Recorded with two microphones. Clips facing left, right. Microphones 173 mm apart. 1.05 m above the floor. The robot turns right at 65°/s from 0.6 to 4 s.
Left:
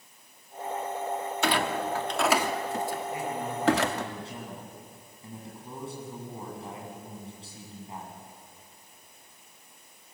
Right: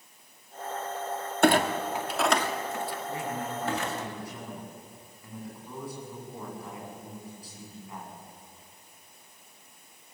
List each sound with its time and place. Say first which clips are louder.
1.4 s a clunk: right 6 dB; 50° right (ahead or behind), 1.7 m; by 4.1 s 65° left (ahead or behind), 1.7 m
3.1 s a man speaking: left 1 dB; 35° right, 8.5 m; by 8.2 s 25° left, 8.5 m